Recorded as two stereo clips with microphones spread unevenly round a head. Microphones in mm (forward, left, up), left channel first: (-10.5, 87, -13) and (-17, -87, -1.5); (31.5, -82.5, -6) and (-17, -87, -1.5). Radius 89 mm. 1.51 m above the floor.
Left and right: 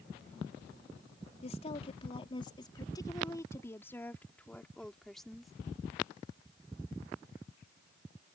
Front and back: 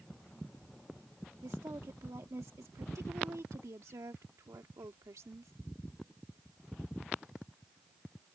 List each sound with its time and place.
1.4 s a woman speaking: 140° left; by 5.5 s straight behind